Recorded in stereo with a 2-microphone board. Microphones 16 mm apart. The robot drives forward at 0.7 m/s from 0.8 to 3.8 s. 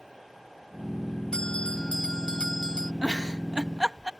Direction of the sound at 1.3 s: 90° left.